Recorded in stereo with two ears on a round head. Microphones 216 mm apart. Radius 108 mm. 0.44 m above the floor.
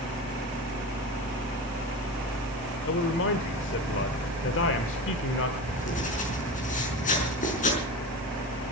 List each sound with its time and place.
2.9 s a man speaking: 55° left (ahead or behind), 1.2 m
5.6 s writing: 35° left (ahead or behind), 5 m